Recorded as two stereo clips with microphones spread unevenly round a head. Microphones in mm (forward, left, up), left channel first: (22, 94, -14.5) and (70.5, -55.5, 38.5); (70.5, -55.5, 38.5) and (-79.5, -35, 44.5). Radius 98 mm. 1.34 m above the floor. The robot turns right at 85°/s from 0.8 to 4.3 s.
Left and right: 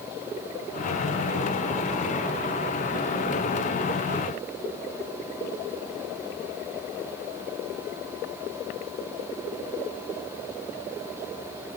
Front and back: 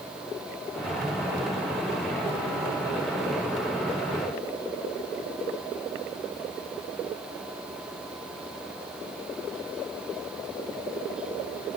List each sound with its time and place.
Only background noise.